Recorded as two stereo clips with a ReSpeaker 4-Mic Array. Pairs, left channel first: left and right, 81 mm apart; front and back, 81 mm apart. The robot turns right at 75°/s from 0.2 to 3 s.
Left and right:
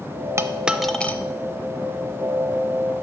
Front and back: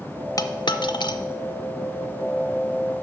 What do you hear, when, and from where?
0.4 s a dropped coin: 35° right, 0.5 m; by 1.2 s 25° left, 0.5 m